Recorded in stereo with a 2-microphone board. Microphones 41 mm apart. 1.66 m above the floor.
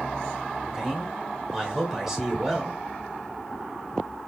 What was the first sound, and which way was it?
A man speaking, 15° right (ahead or behind).